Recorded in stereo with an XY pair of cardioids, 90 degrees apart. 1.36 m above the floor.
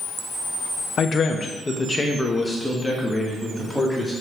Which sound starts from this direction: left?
A man speaking, at 1.0 s.